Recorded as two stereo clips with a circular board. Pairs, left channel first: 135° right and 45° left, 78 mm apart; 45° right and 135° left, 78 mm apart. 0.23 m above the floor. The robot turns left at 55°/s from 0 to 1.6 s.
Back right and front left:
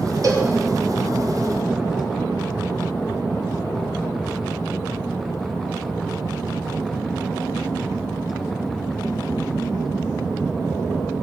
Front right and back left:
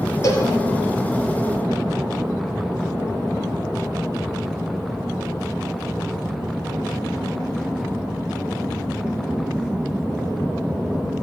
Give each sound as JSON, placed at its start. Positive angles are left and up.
{"t": 0.2, "sound": "a cowbell", "azimuth_deg": 5, "distance_m": 3.0}